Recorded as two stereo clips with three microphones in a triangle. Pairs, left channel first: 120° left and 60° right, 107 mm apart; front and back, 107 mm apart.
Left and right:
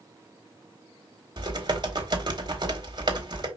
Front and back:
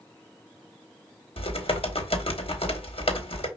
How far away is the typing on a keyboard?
About 1.0 m.